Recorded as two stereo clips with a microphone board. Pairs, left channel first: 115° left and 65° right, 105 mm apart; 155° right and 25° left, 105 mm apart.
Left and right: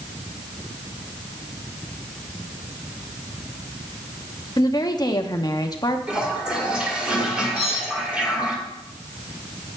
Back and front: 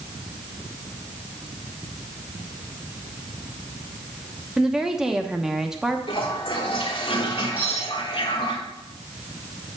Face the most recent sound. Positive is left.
turn(degrees=-50)